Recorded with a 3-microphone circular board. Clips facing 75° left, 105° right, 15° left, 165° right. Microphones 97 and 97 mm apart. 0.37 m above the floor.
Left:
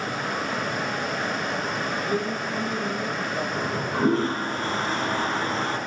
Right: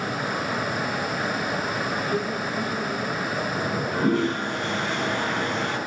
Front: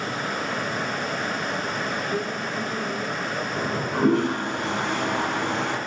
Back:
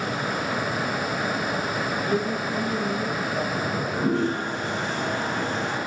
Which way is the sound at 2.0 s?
140° left.